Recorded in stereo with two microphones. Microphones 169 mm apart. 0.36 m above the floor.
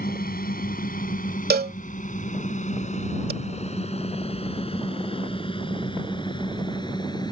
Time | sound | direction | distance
0.0 | a drone | 60° left (ahead or behind) | ?
1.5 | a cowbell | 70° right (ahead or behind) | ?